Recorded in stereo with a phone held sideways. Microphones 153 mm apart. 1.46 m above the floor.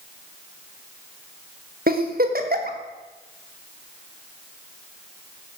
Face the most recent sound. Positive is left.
turn(degrees=-65)  # may be behind; listen again after turning